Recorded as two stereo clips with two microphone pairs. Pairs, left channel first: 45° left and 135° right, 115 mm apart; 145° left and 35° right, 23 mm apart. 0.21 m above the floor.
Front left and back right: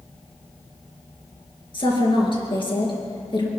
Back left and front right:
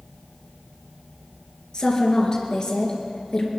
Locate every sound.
1.7 s a woman speaking: 85° left, 4 m